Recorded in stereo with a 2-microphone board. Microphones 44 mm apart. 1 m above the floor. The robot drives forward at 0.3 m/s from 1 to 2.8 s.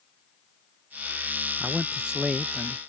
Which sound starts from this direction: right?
A man speaking, at 1.6 s.